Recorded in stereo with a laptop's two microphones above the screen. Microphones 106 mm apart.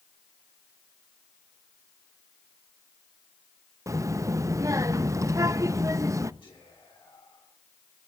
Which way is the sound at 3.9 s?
30° right (ahead or behind).